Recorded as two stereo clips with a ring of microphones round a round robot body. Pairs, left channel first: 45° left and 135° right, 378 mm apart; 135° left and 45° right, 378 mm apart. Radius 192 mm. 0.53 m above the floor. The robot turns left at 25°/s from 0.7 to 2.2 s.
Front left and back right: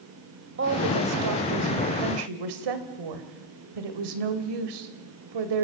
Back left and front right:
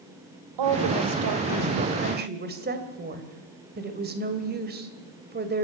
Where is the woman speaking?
75° right, 2 m; by 5.7 s 110° right, 2 m.